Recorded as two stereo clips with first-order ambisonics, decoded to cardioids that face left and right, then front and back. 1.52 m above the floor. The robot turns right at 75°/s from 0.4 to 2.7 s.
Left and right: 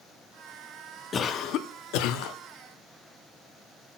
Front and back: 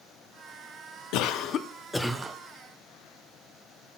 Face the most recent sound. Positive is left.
turn(degrees=140)